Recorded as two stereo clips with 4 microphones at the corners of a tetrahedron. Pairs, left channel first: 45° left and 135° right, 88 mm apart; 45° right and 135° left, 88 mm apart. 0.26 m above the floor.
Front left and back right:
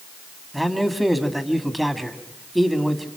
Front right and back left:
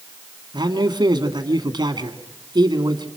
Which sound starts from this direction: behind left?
A man speaking, at 0.5 s.